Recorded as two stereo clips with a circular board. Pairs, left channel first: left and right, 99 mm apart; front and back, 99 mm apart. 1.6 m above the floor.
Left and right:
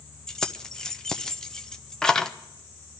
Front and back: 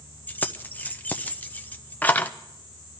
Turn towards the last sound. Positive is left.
turn(degrees=20)